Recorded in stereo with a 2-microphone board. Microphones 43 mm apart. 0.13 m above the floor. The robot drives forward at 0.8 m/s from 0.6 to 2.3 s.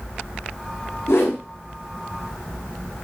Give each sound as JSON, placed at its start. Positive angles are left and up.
{"t": 1.1, "sound": "a whoosh", "side_deg": 75, "distance_m": 1.6}